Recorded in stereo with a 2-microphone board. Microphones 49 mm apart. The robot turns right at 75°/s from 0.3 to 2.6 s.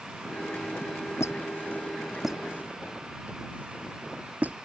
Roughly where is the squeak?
Left.